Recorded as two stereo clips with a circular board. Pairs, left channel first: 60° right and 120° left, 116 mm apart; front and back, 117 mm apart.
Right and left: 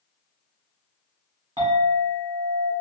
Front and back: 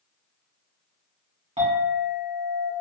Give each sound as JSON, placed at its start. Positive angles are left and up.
{"t": 1.6, "sound": "a clink", "azimuth_deg": 170, "distance_m": 1.9}